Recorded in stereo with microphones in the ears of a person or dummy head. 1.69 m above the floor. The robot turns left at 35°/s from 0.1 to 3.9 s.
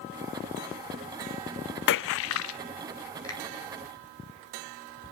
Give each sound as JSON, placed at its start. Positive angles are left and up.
{"t": 1.9, "sound": "a splash", "side_deg": 65, "distance_m": 0.5}
{"t": 3.2, "sound": "a finger snap", "side_deg": 15, "distance_m": 9.0}